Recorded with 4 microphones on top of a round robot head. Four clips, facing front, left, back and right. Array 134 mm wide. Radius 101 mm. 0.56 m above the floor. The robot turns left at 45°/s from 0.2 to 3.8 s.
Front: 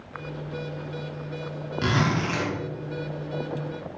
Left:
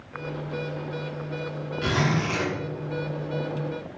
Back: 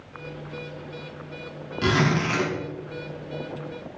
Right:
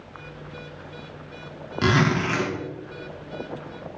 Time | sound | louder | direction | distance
1.8 | a zipper | right 4 dB, back 3 dB | 95° right | 3.5 m